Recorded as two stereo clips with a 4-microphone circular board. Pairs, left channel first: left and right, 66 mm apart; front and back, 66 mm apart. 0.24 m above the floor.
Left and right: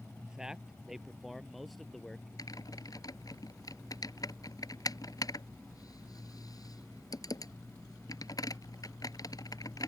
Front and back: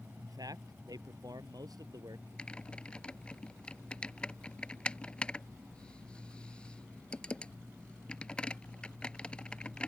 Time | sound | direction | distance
0.2 | a man speaking | 165° right | ?
2.4 | typing on a keyboard | 75° left | ?